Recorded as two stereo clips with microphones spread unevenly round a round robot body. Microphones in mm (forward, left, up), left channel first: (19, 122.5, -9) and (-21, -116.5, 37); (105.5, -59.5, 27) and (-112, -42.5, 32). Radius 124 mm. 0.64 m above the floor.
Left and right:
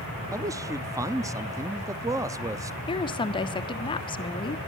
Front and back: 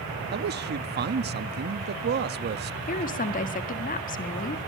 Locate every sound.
0.3 s a man speaking: 175° left, 0.8 m
2.9 s a woman speaking: 30° left, 1.6 m